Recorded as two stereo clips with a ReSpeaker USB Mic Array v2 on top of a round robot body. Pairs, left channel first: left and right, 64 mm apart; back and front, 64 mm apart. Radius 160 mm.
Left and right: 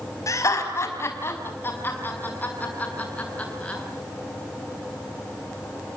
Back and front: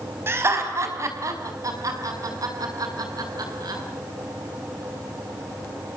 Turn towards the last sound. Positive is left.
turn(degrees=20)